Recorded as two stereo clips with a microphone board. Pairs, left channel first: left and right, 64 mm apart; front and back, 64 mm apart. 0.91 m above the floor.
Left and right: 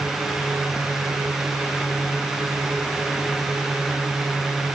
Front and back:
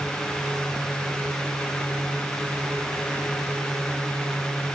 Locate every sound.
Only background noise.